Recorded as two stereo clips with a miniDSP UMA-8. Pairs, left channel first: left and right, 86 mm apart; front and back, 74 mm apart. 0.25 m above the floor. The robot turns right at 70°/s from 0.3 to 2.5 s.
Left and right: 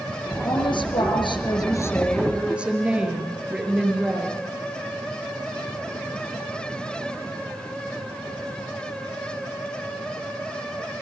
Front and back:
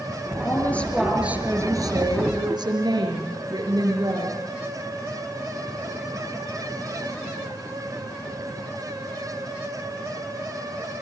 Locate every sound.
0.4 s a woman speaking: 50° left, 5 m; by 4.4 s 165° right, 5 m